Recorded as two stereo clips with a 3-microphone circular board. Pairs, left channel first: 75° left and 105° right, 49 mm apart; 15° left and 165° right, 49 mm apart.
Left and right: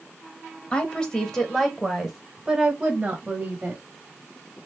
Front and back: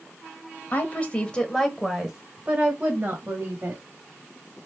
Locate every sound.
0.7 s a woman speaking: 25° left, 1.1 m; by 3.8 s 155° right, 1.4 m